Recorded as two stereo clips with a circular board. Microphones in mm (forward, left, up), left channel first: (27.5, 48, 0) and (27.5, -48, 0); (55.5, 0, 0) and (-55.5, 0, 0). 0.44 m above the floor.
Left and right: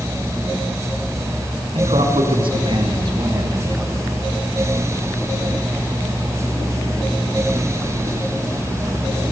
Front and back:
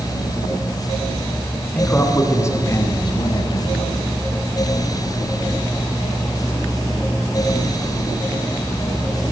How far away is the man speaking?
About 4.5 m.